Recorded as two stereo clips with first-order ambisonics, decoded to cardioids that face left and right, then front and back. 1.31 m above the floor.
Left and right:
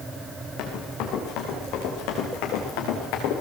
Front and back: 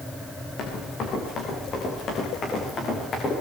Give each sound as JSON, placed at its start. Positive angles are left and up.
{"t": 0.6, "sound": "running footsteps", "azimuth_deg": 55, "distance_m": 5.0}